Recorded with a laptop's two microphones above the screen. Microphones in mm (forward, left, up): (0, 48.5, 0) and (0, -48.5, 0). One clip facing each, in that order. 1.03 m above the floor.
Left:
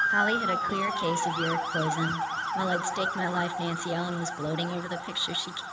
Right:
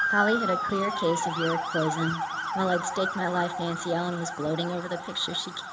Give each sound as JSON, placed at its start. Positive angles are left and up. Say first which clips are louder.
{"t": 0.1, "sound": "a woman speaking", "louder": "right 3 dB", "side_deg": -20, "distance_m": 0.8}